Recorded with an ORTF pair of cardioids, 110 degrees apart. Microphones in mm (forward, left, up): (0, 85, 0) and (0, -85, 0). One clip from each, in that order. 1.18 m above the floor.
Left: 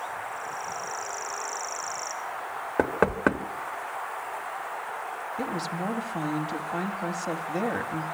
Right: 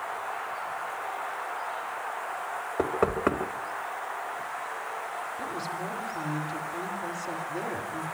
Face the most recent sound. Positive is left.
turn(degrees=70)